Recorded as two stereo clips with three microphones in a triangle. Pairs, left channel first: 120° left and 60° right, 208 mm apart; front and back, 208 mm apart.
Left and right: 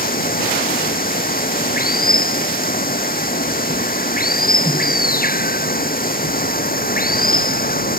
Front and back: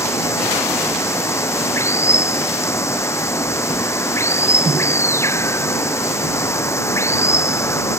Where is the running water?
75° left.